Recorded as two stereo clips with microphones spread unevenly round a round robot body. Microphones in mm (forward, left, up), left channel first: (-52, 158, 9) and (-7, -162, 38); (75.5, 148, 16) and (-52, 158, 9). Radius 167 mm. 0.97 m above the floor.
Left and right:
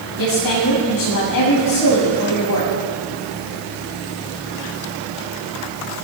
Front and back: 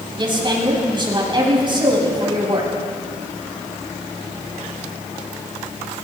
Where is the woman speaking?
125° left, 6 m.